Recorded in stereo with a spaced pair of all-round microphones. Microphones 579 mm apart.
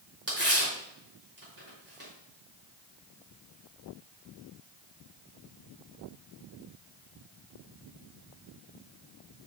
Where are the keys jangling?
No keys jangling in this recording.